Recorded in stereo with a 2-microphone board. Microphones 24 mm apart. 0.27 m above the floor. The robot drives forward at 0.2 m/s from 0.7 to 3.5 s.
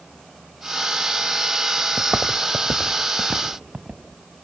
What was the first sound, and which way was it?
Footsteps, 70° right (ahead or behind).